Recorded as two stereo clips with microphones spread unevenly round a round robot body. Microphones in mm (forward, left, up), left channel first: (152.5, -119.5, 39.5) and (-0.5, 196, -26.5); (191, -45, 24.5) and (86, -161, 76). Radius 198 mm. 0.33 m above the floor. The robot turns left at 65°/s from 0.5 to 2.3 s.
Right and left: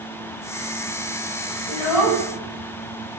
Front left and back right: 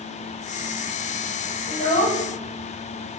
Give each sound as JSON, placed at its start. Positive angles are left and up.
{"t": 1.7, "sound": "a child speaking", "azimuth_deg": 50, "distance_m": 2.5}